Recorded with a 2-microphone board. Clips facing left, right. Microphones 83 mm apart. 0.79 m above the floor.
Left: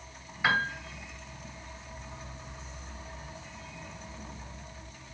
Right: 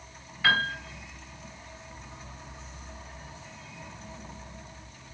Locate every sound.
0.4 s a piano: 20° left (ahead or behind), 2.5 m